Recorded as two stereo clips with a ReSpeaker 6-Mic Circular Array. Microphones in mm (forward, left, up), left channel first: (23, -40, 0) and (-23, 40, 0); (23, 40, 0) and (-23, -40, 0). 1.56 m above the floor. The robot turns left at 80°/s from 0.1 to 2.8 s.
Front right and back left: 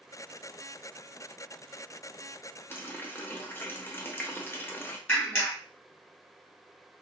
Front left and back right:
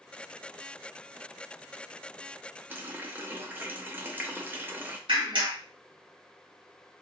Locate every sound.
2.7 s a running tap: 80° right, 0.5 m; by 5.0 s 90° right, 0.5 m
5.1 s a clap: 125° right, 1.3 m